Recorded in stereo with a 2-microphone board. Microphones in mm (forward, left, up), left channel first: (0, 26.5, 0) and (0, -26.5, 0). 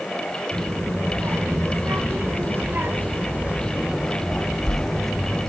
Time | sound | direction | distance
0.5 | a child speaking | 65° right (ahead or behind) | 2.5 m